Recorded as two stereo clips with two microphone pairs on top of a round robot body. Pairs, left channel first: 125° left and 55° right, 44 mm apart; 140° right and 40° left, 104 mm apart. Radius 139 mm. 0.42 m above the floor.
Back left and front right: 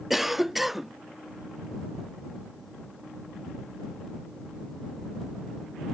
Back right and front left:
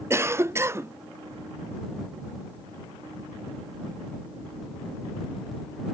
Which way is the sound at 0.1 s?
5° right.